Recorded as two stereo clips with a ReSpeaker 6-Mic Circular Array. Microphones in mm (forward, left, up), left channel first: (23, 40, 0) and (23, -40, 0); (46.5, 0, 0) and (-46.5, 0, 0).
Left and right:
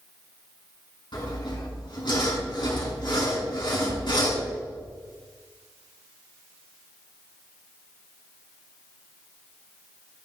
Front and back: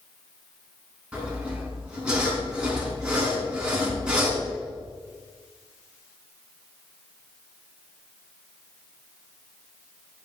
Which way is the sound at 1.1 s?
100° left.